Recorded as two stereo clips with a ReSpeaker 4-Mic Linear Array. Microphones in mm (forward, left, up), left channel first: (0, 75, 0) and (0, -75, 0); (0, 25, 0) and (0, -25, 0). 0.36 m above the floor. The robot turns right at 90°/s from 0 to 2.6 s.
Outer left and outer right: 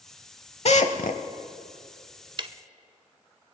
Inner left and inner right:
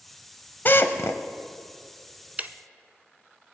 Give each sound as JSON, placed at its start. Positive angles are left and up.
{"t": 0.7, "sound": "a drill", "side_deg": 50, "distance_m": 0.8}
{"t": 2.4, "sound": "ticking", "side_deg": -35, "distance_m": 0.5}